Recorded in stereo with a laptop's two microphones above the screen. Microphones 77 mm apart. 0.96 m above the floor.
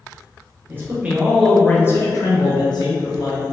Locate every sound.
0.7 s a man speaking: 30° right (ahead or behind), 0.7 m; by 3.4 s 65° left (ahead or behind), 1.1 m